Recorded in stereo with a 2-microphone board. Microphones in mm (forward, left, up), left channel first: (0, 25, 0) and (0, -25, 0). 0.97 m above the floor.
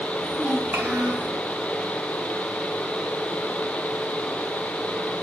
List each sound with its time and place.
0.2 s a child speaking: 25° right (ahead or behind), 2.5 m; by 1.3 s 50° right (ahead or behind), 4 m